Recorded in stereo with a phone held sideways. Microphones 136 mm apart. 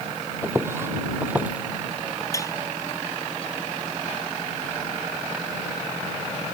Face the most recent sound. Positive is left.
turn(degrees=25)  # may be behind; listen again after turning